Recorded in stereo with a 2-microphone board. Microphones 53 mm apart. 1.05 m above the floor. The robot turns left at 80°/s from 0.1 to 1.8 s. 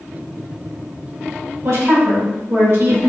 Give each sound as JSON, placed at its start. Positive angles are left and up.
{"t": 1.6, "sound": "a woman speaking", "side_deg": -65, "distance_m": 2.0}